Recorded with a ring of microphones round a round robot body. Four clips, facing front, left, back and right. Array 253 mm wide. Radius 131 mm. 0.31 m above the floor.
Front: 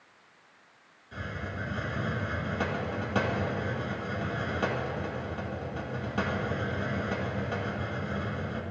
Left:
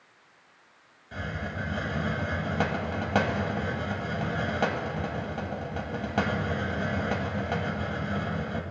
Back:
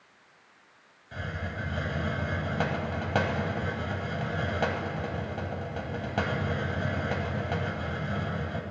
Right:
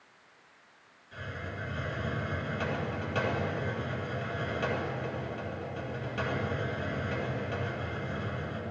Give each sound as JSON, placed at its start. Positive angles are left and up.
{"t": 1.1, "sound": "a hiss", "azimuth_deg": 120, "distance_m": 2.0}